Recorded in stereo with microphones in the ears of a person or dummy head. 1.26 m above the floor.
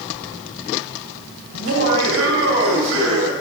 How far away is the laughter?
About 2.5 m.